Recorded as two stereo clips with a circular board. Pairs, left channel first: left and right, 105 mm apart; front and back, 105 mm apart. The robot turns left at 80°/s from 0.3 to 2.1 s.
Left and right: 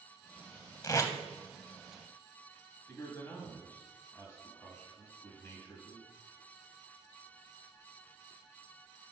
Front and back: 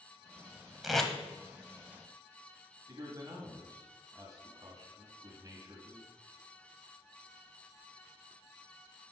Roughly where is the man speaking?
Behind left.